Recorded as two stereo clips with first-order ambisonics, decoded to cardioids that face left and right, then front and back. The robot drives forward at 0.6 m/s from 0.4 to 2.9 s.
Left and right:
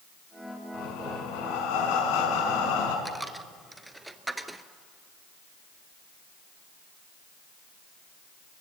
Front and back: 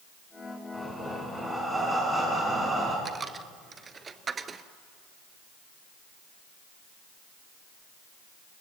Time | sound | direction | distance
0.7 | breathing | 85° left | 5 m
3.0 | a dropped coin | 165° right | 0.9 m